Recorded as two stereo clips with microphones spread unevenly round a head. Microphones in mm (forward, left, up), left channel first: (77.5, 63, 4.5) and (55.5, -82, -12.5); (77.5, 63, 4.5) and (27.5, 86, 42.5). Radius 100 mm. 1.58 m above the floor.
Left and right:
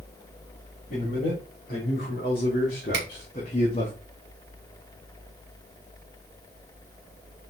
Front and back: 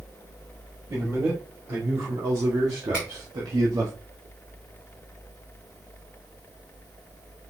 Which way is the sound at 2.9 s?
125° right.